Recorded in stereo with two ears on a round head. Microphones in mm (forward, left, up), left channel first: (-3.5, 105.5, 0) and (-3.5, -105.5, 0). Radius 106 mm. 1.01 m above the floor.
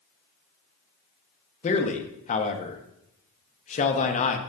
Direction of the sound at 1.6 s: 30° left (ahead or behind).